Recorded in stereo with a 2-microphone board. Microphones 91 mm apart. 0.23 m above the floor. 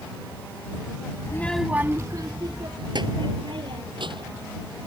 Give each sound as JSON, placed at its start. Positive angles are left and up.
{"t": 1.2, "sound": "a child speaking", "side_deg": 35}